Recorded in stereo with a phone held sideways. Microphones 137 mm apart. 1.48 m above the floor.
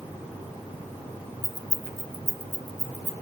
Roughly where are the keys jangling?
Centre.